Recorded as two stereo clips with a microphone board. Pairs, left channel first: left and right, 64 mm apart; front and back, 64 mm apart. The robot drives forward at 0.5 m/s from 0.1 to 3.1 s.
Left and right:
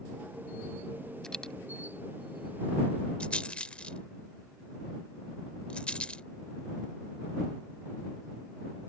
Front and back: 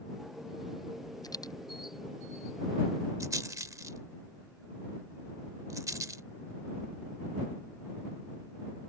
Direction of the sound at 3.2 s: 160° left.